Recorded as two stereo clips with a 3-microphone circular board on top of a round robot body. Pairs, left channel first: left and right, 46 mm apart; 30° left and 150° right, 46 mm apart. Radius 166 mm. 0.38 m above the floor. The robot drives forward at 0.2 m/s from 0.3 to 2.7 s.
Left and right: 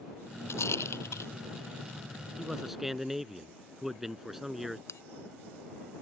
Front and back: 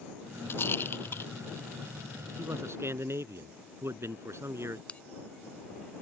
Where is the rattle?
70° left.